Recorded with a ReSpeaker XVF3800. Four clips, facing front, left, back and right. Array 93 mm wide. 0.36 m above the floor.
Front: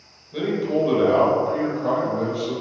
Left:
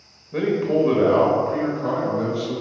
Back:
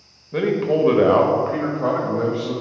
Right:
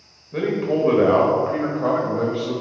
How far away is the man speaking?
About 1.0 m.